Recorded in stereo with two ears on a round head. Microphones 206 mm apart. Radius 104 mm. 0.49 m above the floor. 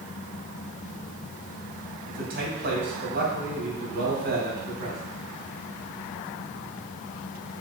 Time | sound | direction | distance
2.1 | a man speaking | 45° right (ahead or behind) | 3 m